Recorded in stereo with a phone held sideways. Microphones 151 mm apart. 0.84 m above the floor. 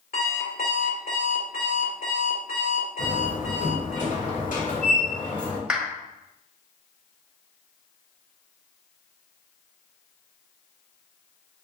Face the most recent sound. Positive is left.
turn(degrees=-5)  # may be behind; listen again after turning